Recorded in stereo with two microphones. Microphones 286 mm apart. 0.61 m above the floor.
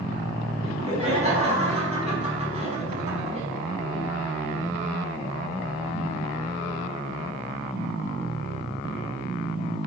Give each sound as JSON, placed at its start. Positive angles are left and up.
{"t": 0.6, "sound": "laughter", "side_deg": -20, "distance_m": 6.0}